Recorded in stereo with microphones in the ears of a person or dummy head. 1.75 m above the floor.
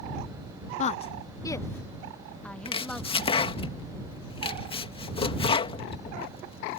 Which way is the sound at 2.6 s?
25° left (ahead or behind).